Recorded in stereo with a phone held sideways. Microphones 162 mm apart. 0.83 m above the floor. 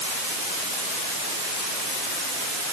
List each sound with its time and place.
Only background noise.